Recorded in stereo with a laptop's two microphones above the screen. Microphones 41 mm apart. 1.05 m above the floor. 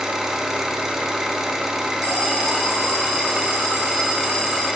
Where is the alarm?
35° left (ahead or behind), 3.5 m.